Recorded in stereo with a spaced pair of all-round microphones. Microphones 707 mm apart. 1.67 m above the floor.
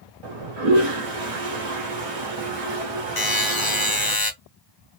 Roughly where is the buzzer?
Left.